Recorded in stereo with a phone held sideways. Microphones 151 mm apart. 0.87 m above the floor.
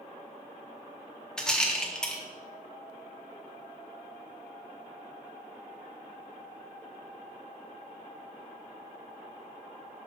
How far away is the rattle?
About 0.9 m.